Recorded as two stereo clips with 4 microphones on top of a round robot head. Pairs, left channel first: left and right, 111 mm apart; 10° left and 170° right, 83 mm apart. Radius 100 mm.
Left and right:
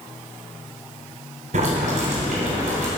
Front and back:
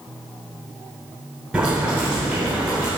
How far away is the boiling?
About 2.5 m.